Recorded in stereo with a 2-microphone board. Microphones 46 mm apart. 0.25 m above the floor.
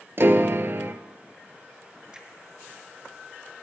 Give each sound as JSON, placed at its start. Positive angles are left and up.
{"t": 0.2, "sound": "a piano", "side_deg": -50, "distance_m": 0.7}
{"t": 2.1, "sound": "a finger snap", "side_deg": -20, "distance_m": 3.5}